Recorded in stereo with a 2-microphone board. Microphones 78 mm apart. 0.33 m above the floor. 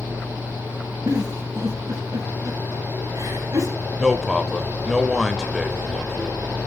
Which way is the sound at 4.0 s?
5° right (ahead or behind).